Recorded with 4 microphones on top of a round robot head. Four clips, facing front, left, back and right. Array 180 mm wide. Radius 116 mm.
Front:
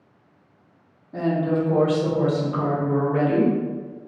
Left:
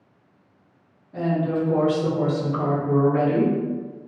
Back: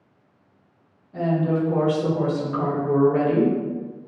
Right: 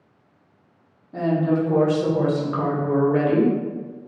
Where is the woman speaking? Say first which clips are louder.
Right 3 dB, even; 40° right, 1.2 m; by 3.5 s 90° right, 1.7 m.